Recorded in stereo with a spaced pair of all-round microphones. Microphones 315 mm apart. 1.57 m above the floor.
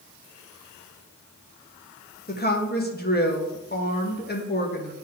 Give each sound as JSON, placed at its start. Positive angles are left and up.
{"t": 2.3, "sound": "a woman speaking", "side_deg": 30, "distance_m": 1.6}